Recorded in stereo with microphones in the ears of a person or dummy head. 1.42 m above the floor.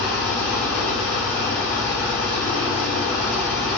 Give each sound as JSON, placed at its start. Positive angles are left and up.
{"t": 0.0, "sound": "an engine running", "side_deg": 55, "distance_m": 0.9}